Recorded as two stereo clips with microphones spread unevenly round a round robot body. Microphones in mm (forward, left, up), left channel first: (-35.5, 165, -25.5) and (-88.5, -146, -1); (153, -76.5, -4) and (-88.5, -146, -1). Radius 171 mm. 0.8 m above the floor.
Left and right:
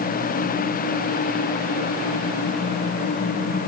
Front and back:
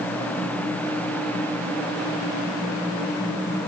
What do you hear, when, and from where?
Only background noise.